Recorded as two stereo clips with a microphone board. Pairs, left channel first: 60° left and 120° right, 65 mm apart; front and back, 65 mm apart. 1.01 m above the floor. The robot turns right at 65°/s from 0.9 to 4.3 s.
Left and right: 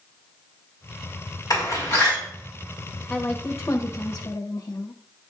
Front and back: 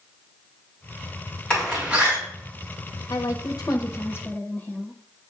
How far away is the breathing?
I don't hear breathing.